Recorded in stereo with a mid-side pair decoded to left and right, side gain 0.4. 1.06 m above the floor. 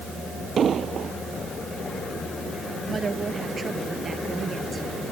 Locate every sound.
0.6 s an explosion: 55° right
2.9 s a woman speaking: 40° right